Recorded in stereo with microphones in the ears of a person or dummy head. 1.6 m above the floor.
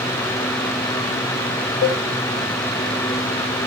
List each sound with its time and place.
1.8 s a cowbell: 35° left (ahead or behind), 2.5 m